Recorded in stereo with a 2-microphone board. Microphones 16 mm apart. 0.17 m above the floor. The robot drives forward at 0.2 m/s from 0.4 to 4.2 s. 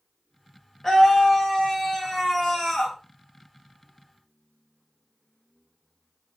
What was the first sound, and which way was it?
A scream, 25° left (ahead or behind).